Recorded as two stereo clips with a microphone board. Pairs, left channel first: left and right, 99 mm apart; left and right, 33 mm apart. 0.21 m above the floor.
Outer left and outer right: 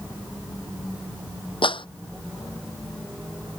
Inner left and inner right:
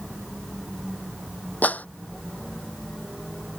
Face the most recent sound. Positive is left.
turn(degrees=60)  # may be behind; listen again after turning